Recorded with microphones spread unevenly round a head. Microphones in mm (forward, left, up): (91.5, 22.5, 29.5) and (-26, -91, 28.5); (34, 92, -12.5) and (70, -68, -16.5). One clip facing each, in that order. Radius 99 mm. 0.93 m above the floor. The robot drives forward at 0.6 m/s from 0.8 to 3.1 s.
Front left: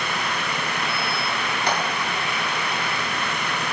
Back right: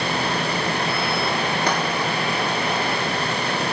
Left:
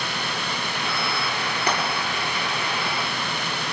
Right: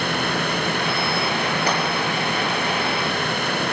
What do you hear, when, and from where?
1.7 s frying: 140° right, 7.5 m